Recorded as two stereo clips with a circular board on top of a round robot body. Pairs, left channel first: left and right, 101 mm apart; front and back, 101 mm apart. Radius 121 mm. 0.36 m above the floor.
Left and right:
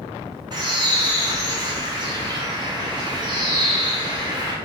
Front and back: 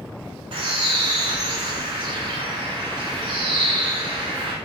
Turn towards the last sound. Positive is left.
turn(degrees=-140)